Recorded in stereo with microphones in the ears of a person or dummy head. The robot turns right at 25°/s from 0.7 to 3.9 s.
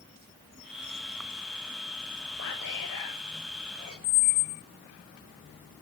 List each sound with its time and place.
2.4 s whispering: 105° left, 6.5 m; by 3.9 s 145° left, 6.5 m
4.0 s a squeak: 55° left (ahead or behind), 0.8 m